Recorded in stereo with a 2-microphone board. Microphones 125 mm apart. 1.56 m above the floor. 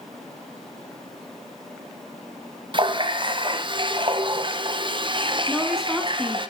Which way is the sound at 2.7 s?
40° right (ahead or behind).